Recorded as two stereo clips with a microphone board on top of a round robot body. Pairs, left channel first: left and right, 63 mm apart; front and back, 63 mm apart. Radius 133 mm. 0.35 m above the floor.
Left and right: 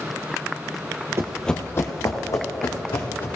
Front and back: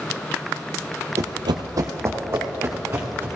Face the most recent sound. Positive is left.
turn(degrees=120)